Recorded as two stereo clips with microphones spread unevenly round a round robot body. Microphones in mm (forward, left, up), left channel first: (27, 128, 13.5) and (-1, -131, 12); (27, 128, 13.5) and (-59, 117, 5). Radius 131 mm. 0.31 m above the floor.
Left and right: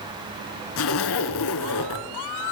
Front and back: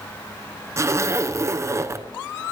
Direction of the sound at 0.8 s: 125° left.